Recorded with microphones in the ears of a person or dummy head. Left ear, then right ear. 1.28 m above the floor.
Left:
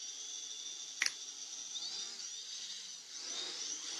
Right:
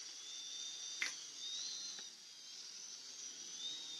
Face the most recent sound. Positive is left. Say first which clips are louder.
# left 6 dB
turn(degrees=20)  # may be behind; listen again after turning